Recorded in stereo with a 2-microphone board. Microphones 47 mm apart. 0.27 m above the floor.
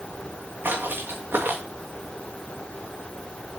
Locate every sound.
0.6 s footsteps: 50° right (ahead or behind), 1.7 m